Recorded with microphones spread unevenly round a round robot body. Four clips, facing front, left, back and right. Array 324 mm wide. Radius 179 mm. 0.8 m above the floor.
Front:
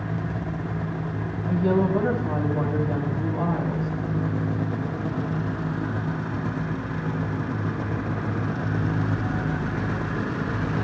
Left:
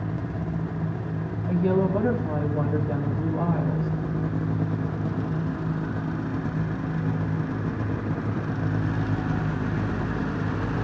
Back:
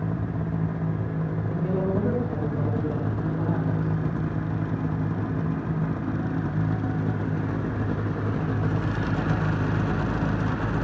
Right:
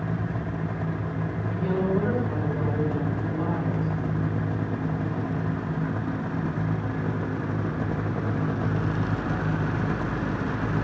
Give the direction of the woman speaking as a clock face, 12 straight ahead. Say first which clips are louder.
Left 4 dB, front 6 dB; 10 o'clock.